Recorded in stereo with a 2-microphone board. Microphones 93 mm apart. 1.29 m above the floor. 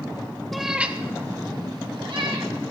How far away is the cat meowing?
About 0.9 m.